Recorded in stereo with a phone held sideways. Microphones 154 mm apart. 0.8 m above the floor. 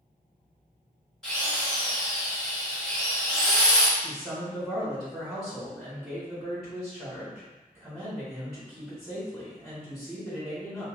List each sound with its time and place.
1.2 s a drill: 5° left (ahead or behind), 1.2 m
4.0 s a man speaking: 5° right (ahead or behind), 1.5 m